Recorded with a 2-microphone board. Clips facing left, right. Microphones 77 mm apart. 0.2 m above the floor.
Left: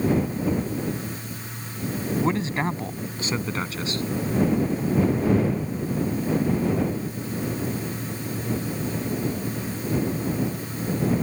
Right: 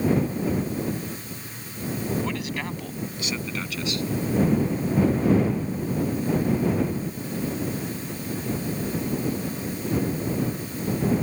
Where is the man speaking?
30° left (ahead or behind); by 4.0 s 35° left (ahead or behind).